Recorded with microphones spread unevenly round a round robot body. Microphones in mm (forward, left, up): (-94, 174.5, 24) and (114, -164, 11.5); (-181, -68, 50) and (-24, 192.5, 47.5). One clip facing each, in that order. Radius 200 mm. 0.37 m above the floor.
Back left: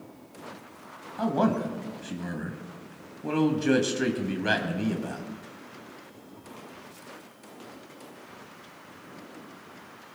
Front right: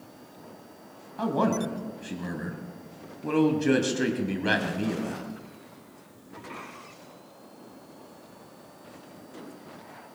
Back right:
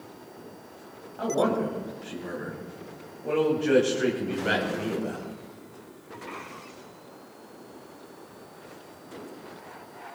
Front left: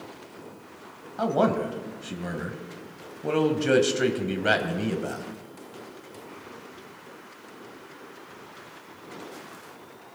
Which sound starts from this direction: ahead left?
A man speaking, at 1.2 s.